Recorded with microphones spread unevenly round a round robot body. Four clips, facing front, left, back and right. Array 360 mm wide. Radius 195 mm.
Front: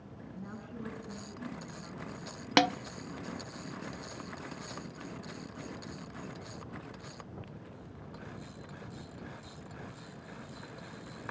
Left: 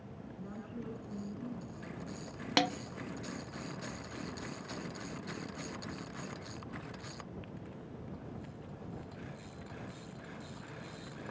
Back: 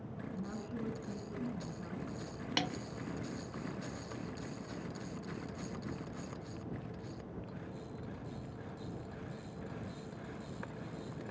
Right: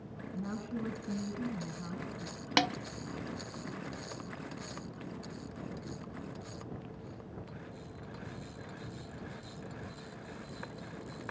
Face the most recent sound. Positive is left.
turn(degrees=5)